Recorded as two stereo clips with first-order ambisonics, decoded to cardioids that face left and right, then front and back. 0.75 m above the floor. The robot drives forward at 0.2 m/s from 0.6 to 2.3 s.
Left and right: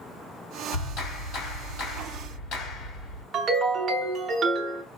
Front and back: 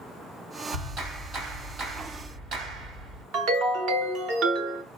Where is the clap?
120° left, 2 m; by 3.2 s 130° left, 2 m.